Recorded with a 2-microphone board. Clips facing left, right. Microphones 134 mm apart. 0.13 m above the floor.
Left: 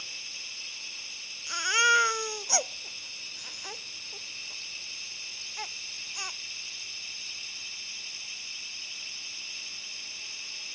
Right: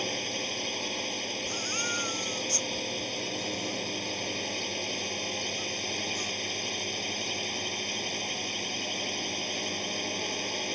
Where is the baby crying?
80° left.